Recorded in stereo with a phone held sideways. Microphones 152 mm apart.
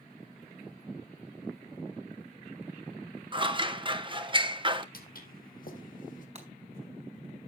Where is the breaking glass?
45° right (ahead or behind), 4 m.